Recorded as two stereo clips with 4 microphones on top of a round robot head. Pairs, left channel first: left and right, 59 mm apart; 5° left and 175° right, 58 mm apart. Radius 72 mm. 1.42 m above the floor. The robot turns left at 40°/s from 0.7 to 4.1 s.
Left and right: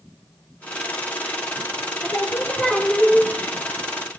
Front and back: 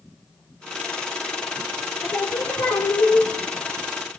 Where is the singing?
45° left, 1.3 m; by 3.3 s 5° right, 1.3 m.